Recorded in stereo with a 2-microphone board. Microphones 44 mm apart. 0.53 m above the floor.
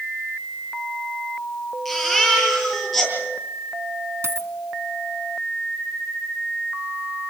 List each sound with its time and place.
1.9 s a baby crying: centre (ahead or behind), 10 m
4.2 s a dropped coin: 75° right (ahead or behind), 1.5 m